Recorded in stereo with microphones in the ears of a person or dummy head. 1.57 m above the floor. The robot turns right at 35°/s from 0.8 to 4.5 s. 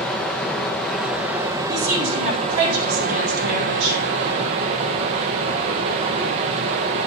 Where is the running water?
165° left, 0.8 m; by 7.1 s 65° right, 0.8 m.